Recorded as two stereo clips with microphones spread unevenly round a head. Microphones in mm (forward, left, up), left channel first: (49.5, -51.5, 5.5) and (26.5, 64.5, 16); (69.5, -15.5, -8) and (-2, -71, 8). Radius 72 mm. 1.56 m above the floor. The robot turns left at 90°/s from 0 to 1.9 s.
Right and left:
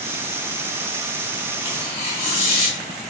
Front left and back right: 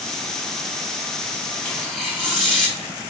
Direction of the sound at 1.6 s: 30° right.